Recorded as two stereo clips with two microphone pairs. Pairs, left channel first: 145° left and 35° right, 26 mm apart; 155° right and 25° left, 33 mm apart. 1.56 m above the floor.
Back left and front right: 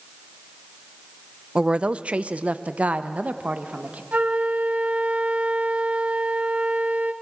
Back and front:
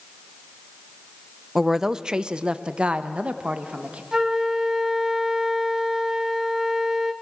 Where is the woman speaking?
55° right, 0.5 m; by 4.0 s 25° right, 1.7 m.